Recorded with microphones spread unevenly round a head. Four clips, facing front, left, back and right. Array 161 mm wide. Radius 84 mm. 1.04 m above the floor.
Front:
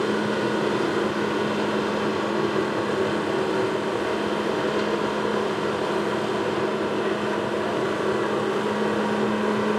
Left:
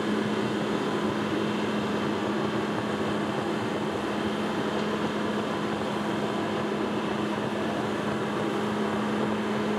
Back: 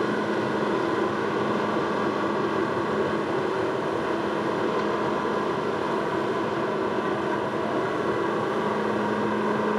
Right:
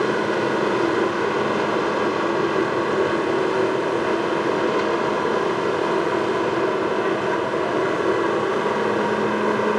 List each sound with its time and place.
0.0 s a machine running: 70° right, 4 m